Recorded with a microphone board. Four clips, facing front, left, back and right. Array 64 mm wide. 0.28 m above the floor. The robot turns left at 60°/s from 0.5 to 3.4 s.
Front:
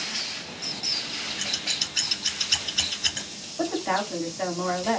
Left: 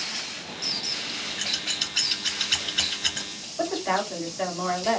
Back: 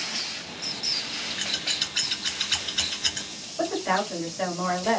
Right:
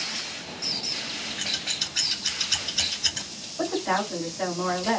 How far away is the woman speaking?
About 1.6 m.